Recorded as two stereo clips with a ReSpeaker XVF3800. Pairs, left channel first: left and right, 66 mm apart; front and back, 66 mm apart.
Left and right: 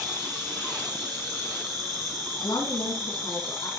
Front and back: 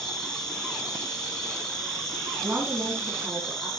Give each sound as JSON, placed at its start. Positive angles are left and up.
{"t": 0.0, "sound": "an insect", "azimuth_deg": -80, "distance_m": 9.5}
{"t": 2.4, "sound": "a woman speaking", "azimuth_deg": 100, "distance_m": 7.5}